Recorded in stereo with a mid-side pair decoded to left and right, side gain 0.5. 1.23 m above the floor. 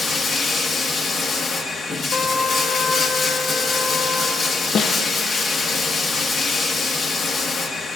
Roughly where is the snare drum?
Ahead left.